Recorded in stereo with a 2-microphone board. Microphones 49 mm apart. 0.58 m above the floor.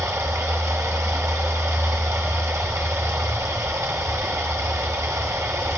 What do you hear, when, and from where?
0.0 s running water: 85° right, 1.2 m